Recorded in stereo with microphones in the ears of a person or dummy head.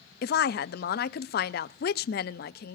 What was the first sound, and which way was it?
A woman speaking, 50° left (ahead or behind).